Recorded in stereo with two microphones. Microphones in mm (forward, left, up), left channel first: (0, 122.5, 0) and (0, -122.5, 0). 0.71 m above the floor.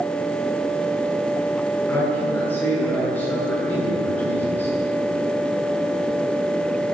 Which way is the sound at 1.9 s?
5° left (ahead or behind).